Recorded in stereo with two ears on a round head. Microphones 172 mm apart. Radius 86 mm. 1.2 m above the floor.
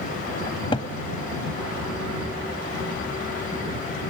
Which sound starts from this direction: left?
A cupboard door, at 0.5 s.